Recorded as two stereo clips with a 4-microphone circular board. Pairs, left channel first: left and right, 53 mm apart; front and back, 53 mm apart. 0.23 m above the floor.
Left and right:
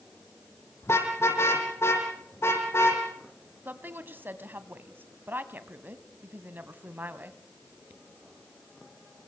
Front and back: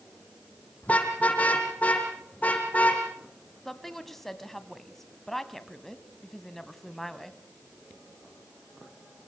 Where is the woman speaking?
80° right, 2 m.